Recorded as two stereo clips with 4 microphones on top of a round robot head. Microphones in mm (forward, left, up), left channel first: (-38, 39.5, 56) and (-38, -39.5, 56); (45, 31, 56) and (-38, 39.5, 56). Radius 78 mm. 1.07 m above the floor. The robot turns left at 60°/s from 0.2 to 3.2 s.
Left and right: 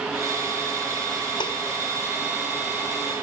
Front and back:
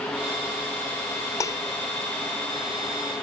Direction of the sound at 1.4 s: 50° left.